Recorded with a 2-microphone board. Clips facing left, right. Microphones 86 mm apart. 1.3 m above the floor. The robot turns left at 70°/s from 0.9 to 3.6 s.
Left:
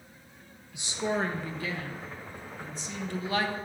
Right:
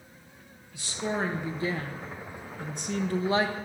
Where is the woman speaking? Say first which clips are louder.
Left 1 dB; 20° left, 0.7 m; by 3.5 s 165° right, 0.7 m.